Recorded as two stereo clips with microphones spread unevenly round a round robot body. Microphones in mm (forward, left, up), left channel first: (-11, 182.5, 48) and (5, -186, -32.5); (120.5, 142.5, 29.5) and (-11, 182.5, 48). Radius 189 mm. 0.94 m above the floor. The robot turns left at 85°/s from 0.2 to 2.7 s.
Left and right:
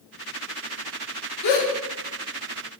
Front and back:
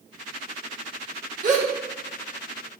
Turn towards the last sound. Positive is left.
turn(degrees=35)